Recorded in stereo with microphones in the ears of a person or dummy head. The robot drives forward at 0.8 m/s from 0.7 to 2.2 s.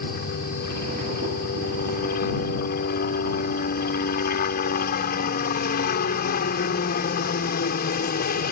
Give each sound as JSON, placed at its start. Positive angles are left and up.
{"t": 0.0, "sound": "a helicopter", "side_deg": 50}